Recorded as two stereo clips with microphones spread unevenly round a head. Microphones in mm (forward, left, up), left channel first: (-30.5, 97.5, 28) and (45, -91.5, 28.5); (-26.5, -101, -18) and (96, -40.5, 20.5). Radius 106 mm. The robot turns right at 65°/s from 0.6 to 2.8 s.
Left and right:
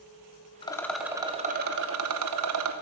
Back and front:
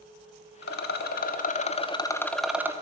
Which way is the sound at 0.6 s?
Straight behind.